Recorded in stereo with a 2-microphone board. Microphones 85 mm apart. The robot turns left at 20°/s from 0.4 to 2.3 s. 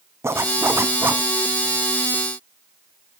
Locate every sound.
0.2 s a zipper: 30° right (ahead or behind), 0.6 m